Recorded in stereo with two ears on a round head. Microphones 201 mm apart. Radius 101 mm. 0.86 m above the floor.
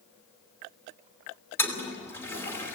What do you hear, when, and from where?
1.6 s a toilet flushing: 10° left (ahead or behind), 3 m